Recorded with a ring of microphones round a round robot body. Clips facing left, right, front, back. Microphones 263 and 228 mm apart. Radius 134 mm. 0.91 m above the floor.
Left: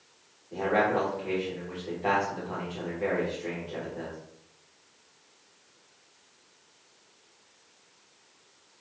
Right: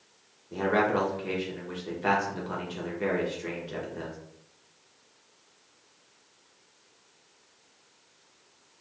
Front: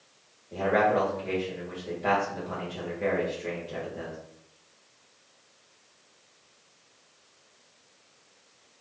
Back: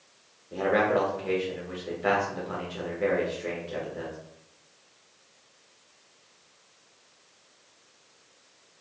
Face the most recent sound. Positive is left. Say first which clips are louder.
# right 1 dB, back 1 dB
turn(degrees=-110)